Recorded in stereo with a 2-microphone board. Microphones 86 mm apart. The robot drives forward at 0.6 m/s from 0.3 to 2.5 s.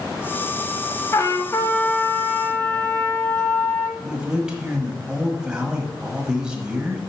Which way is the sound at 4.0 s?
10° right (ahead or behind).